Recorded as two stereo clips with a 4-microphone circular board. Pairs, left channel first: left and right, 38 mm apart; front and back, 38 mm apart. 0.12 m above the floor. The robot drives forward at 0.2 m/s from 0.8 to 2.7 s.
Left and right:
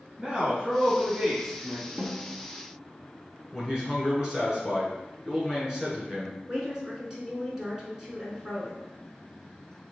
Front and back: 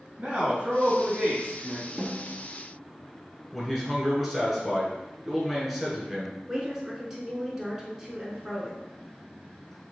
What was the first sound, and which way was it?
A man speaking, 150° right.